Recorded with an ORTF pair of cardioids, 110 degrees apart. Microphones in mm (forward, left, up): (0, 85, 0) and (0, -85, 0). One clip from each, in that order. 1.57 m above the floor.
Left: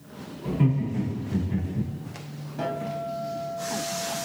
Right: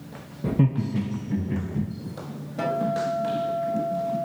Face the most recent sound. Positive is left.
turn(degrees=-40)